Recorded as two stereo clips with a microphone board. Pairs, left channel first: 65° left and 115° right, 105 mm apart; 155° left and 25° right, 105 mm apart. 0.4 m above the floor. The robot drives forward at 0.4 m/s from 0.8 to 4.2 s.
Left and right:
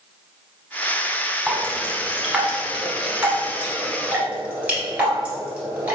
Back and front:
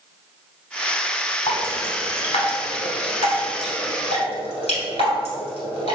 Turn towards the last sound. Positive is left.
turn(degrees=175)